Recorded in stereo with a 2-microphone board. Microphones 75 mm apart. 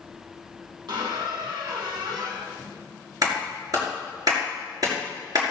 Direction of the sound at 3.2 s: 55° right (ahead or behind).